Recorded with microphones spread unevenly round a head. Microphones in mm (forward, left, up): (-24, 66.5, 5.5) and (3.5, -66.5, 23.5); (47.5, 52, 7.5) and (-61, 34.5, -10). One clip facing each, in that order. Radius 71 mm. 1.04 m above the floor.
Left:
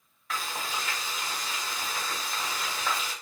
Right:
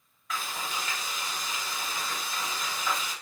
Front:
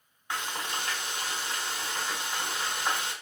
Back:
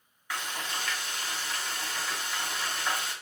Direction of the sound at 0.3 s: 65° left.